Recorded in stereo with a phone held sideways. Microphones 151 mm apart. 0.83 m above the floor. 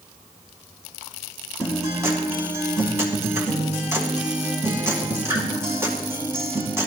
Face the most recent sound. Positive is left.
turn(degrees=-20)  # may be behind; listen again after turning